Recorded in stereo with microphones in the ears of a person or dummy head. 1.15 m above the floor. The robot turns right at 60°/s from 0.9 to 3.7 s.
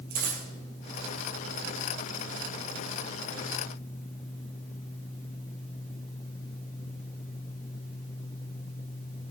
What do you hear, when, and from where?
0.1 s a dropped coin: 50° right (ahead or behind), 4 m